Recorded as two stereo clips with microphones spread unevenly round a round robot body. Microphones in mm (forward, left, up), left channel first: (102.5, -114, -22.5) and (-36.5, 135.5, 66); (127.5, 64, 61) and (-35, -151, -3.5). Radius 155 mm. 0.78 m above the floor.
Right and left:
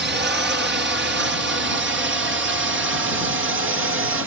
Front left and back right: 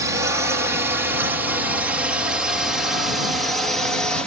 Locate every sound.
0.0 s a drone: straight behind; by 4.3 s 160° left